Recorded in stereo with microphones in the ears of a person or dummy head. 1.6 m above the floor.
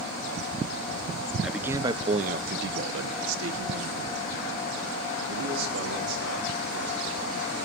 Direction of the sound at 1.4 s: Centre (ahead or behind).